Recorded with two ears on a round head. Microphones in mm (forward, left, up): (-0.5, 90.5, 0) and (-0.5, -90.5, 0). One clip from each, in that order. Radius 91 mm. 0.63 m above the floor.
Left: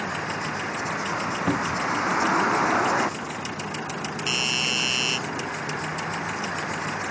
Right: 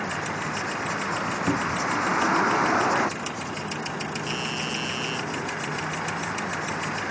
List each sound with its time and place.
0.0 s a vehicle: 5° left (ahead or behind)
1.5 s a cupboard door: 15° left (ahead or behind)
4.3 s a doorbell: 55° left (ahead or behind)